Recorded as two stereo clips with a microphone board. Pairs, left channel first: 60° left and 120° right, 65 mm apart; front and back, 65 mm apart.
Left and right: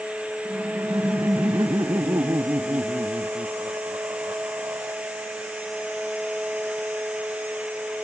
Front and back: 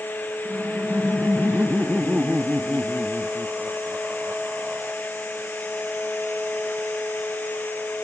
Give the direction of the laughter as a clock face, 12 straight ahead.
4 o'clock.